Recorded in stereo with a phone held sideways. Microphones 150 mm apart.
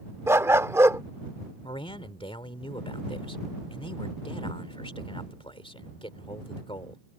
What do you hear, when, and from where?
0.3 s a dog barking: 20° right (ahead or behind)
1.6 s a man speaking: 35° left (ahead or behind)